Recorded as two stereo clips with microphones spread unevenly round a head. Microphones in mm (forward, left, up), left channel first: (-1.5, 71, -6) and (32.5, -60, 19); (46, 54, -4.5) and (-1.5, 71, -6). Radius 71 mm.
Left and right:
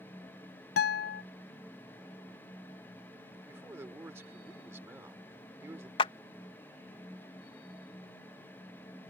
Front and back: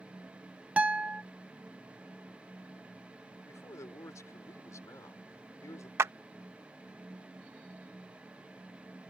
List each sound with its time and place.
0.8 s a guitar: 95° left
3.5 s a man speaking: 5° right
6.0 s a clap: 165° left